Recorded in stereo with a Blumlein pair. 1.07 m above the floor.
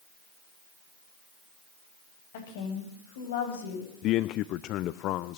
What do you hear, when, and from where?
2.3 s a woman speaking: 55° left, 7.5 m; by 3.9 s 65° left, 8.5 m
4.0 s a man speaking: 35° left, 0.7 m